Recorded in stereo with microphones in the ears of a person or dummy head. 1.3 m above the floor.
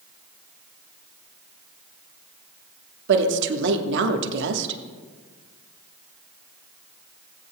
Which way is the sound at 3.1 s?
75° right (ahead or behind).